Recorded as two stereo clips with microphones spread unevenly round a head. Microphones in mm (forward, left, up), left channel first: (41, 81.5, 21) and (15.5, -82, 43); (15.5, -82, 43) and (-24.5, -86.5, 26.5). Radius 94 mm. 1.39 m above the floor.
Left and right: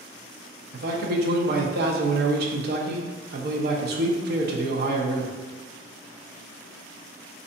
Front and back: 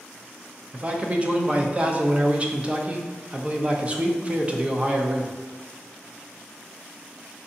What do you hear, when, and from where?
0.7 s a man speaking: 125° right, 0.6 m